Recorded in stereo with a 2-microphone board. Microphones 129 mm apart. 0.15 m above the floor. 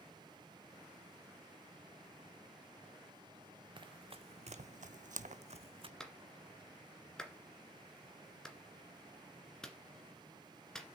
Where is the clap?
5° left (ahead or behind), 1.8 m.